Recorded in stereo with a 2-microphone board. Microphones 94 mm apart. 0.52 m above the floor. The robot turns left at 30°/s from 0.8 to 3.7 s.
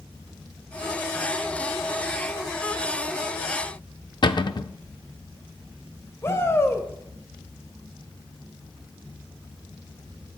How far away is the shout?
About 1.7 m.